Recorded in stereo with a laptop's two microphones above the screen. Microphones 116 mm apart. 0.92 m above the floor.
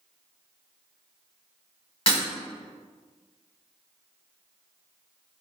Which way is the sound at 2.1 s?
50° left (ahead or behind).